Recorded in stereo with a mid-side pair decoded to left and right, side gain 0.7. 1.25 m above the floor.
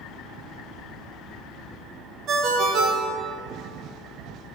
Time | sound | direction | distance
2.3 | a ringtone | 50° right | 1.1 m